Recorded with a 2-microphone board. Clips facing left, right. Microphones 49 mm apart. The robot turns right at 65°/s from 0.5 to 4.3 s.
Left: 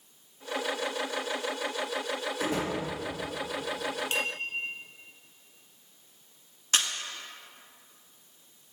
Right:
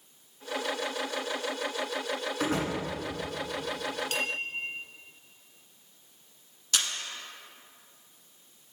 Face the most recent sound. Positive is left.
turn(degrees=45)  # may be behind; listen again after turning